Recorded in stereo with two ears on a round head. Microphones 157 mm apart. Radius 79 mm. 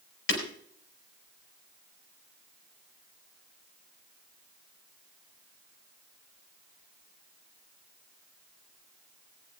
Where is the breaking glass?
70° left (ahead or behind), 4 m.